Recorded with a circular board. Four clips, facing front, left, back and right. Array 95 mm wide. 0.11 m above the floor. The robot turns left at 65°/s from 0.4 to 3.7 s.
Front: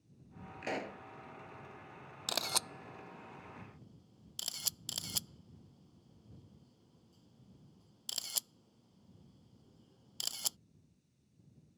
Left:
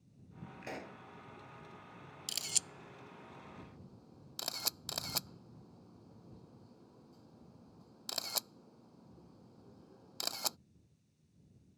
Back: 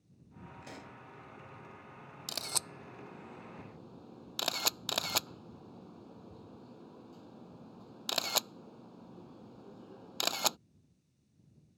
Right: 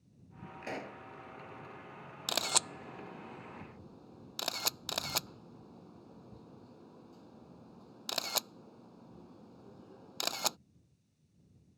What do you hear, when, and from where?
0.6 s a pop: 10° right; by 1.0 s 35° right
2.3 s a camera shutter: 65° right; by 10.6 s 155° right